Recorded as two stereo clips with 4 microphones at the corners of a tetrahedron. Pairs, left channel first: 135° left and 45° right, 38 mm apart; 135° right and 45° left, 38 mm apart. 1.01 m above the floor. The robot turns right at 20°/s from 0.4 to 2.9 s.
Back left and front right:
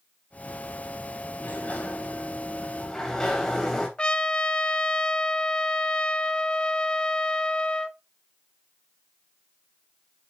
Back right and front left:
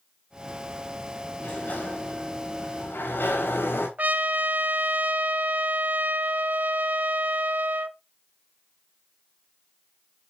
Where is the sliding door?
175° left, 4 m; by 3.9 s 155° right, 4 m.